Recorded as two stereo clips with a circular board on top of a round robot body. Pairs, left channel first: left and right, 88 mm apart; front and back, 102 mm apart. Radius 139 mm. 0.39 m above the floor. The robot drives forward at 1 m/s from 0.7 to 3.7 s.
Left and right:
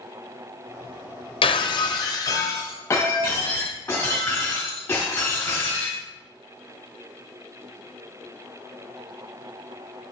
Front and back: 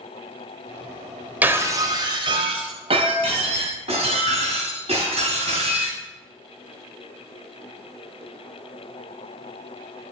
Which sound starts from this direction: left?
Breaking glass, at 1.4 s.